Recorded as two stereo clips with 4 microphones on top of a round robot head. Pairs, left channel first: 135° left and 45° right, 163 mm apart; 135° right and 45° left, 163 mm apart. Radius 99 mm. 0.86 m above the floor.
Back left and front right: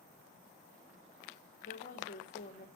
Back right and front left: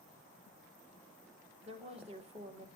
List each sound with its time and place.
1.6 s a woman speaking: 95° left, 2 m